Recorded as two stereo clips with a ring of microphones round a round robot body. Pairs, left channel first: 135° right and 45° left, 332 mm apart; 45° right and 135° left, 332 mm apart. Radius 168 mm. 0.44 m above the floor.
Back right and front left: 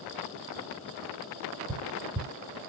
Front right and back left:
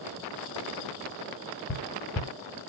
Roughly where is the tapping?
Ahead right.